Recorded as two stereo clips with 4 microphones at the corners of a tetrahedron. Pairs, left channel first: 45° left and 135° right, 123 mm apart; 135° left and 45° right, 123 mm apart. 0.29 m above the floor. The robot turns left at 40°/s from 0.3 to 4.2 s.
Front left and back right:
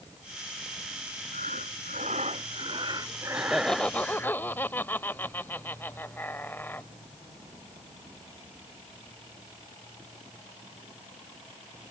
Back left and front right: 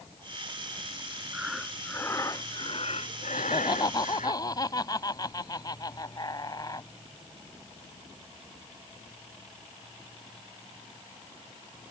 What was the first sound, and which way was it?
Breathing, 125° right.